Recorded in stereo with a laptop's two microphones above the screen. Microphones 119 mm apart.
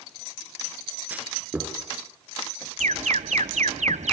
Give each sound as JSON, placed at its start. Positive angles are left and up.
{"t": 1.1, "sound": "a clunk", "side_deg": -15, "distance_m": 5.0}
{"t": 2.8, "sound": "an alarm", "side_deg": -80, "distance_m": 1.0}